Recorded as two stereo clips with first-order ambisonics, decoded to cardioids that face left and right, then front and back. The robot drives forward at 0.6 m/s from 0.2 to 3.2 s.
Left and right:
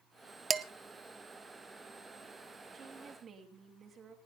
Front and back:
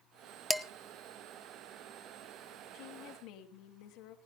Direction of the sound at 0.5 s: 75° right.